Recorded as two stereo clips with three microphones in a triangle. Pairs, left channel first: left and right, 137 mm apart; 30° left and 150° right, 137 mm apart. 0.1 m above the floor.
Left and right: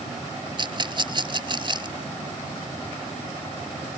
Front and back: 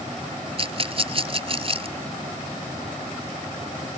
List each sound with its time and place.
0.6 s a rattle: 130° right